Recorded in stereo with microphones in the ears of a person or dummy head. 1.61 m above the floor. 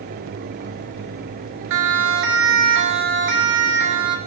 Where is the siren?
80° right, 4 m; by 4.2 s 70° right (ahead or behind), 5 m.